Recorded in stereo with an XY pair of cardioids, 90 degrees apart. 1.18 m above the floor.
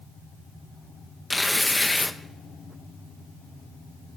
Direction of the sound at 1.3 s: 15° left.